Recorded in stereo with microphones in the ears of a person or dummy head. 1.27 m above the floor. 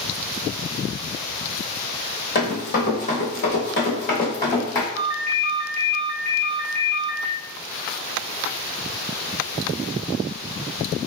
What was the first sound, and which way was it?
Running footsteps, 40° left (ahead or behind).